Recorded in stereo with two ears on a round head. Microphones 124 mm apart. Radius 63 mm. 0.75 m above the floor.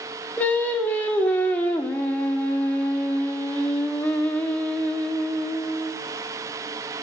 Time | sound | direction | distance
0.4 | singing | 10° left (ahead or behind) | 1.9 m